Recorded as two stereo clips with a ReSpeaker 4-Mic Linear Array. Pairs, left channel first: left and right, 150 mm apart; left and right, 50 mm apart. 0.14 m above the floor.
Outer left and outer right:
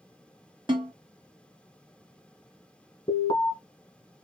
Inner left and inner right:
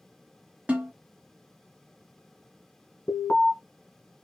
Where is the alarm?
35° left (ahead or behind), 1.4 m.